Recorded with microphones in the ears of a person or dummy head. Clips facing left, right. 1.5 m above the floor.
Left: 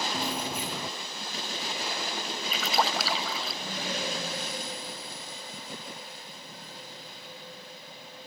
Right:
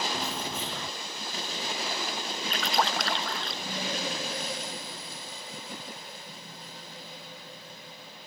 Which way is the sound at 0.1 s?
5° left (ahead or behind).